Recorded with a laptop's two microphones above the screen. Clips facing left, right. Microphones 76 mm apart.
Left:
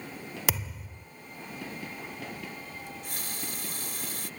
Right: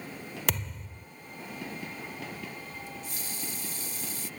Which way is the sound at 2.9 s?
60° left (ahead or behind).